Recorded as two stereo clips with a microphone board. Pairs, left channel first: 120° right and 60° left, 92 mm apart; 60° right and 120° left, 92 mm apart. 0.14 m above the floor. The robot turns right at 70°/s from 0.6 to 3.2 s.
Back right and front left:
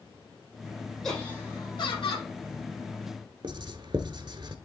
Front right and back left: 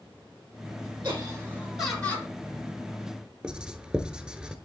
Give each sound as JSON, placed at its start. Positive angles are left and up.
{"t": 1.0, "sound": "laughter", "azimuth_deg": 155, "distance_m": 4.0}
{"t": 3.4, "sound": "writing", "azimuth_deg": 40, "distance_m": 0.9}